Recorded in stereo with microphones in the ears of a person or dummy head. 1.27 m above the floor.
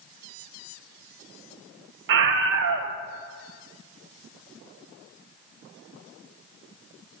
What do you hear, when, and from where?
2.1 s a scream: 60° right (ahead or behind), 1.2 m